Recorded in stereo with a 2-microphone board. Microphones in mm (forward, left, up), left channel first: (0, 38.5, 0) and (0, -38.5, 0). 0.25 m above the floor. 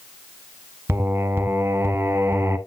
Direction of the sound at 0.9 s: 30° right (ahead or behind).